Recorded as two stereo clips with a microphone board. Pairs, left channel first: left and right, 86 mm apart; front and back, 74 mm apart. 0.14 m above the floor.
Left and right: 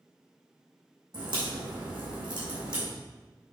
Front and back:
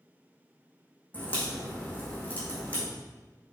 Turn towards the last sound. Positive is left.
turn(degrees=-70)